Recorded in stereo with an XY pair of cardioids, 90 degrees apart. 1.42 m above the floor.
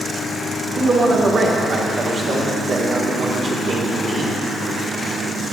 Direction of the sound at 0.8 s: 50° right.